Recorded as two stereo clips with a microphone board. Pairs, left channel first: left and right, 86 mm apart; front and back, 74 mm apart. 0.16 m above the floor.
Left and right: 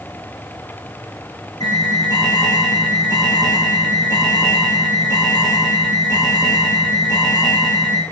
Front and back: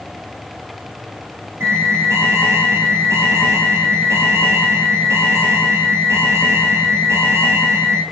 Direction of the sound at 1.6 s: 130° left.